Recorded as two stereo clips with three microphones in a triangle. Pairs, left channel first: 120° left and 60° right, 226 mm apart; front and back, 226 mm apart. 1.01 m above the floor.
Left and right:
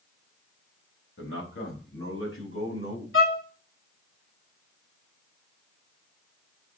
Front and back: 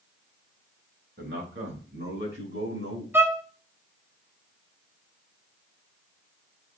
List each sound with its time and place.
1.2 s a man speaking: 140° left, 4.5 m; by 3.0 s 145° left, 6 m
3.1 s a violin: 100° left, 1.3 m